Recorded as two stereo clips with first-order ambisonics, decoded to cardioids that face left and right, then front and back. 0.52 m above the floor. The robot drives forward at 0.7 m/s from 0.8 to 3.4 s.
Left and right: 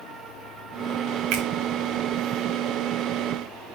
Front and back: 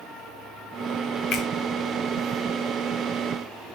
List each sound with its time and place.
1.3 s a finger snap: 50° right, 2.5 m; by 1.5 s 55° right, 2.5 m